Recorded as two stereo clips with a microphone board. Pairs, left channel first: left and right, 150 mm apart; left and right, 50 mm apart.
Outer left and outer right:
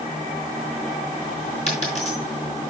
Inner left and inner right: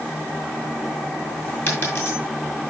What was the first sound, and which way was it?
A dropped coin, 50° left (ahead or behind).